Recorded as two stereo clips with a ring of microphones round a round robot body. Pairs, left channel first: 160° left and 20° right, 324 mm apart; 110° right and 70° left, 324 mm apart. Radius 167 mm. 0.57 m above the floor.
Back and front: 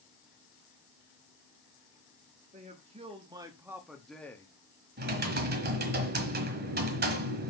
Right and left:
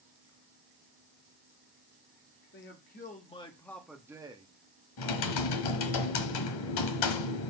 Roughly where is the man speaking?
Right.